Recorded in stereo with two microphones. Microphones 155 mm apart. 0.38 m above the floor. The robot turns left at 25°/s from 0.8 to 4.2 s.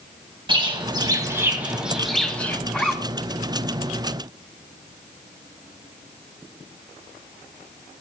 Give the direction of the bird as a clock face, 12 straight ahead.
5 o'clock.